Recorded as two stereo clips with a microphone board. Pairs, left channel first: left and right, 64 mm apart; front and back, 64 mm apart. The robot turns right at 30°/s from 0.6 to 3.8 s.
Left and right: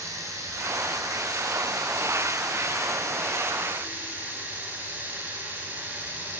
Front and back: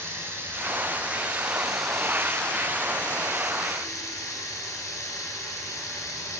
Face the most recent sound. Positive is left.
turn(degrees=-30)